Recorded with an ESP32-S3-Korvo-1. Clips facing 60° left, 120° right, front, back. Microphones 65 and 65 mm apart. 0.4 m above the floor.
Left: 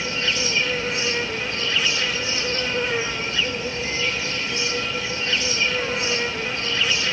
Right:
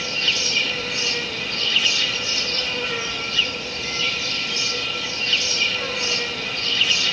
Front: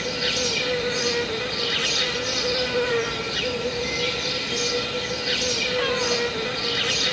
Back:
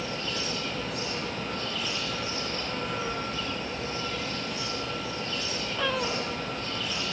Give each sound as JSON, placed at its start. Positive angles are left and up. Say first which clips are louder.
{"t": 0.0, "sound": "an insect", "louder": "left 1 dB, front 6 dB", "azimuth_deg": 0, "distance_m": 2.5}